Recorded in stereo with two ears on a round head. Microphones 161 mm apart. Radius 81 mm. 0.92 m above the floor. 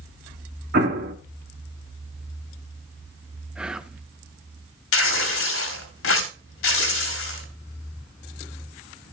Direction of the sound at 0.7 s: 55° right (ahead or behind).